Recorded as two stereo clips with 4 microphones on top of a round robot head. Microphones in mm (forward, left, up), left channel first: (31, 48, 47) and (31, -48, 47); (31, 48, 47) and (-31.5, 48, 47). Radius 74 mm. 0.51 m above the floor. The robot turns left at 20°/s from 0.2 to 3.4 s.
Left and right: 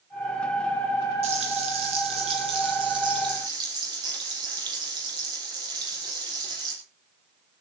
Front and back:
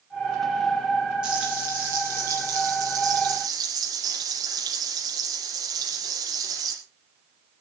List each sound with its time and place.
1.2 s frying: 100° right, 7 m; by 6.8 s 145° right, 7 m